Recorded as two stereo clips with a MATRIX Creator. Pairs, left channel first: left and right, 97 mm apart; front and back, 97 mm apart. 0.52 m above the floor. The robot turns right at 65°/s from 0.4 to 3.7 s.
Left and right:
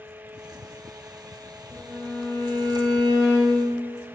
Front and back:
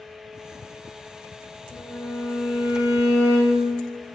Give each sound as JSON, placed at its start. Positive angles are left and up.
{"t": 1.7, "sound": "a violin", "azimuth_deg": -40, "distance_m": 0.8}